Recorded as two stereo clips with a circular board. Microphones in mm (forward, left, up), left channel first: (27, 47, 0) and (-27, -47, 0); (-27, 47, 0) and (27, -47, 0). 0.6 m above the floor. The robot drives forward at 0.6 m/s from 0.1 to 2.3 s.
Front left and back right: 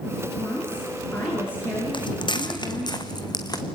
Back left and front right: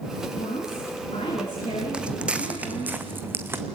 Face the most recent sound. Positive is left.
turn(degrees=10)